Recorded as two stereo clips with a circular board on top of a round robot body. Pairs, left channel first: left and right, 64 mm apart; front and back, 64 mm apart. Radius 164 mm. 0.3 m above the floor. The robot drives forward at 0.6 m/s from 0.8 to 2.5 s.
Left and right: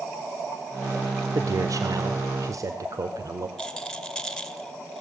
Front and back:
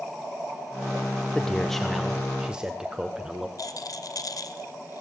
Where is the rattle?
10° left, 2.5 m.